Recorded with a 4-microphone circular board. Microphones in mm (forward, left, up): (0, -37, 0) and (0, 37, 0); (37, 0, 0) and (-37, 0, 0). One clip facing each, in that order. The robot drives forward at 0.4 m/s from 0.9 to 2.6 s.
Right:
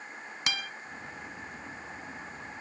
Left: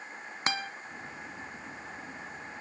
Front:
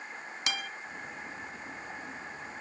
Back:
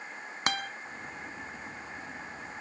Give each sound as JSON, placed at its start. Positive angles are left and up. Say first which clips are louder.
{"t": 0.5, "sound": "a guitar", "louder": "left 3 dB, back 5 dB", "azimuth_deg": 145, "distance_m": 0.6}